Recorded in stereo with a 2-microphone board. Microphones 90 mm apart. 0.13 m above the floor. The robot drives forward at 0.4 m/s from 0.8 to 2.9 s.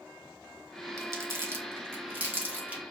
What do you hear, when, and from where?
1.0 s crumpling: 35° right (ahead or behind), 0.7 m; by 2.8 s 15° right (ahead or behind), 1.2 m